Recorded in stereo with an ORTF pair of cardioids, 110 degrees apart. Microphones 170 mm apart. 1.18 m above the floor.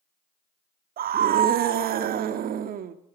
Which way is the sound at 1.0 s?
60° right.